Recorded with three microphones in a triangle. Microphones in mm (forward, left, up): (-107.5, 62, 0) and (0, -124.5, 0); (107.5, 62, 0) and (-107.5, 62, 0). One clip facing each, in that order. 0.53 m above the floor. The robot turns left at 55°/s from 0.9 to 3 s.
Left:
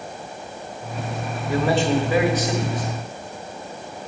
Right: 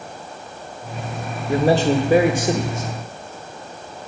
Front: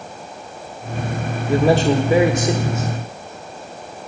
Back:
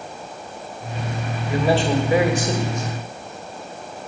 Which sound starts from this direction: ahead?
A man speaking, at 1.5 s.